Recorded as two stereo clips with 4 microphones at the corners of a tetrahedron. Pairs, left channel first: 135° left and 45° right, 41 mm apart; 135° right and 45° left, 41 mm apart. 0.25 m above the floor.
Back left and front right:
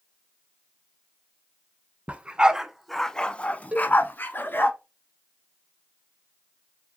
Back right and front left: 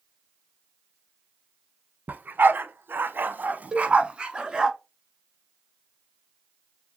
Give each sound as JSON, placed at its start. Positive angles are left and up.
{"t": 2.1, "sound": "a dog barking", "azimuth_deg": 5, "distance_m": 0.7}
{"t": 3.7, "sound": "a cowbell", "azimuth_deg": -20, "distance_m": 1.0}